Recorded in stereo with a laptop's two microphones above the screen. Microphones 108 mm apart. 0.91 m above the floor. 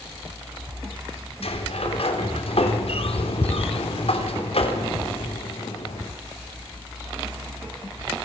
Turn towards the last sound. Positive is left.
turn(degrees=70)  # may be behind; listen again after turning